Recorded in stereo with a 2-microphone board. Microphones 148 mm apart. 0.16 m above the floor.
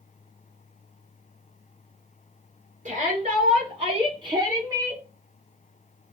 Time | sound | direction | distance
2.9 | a shout | 50° right (ahead or behind) | 1.8 m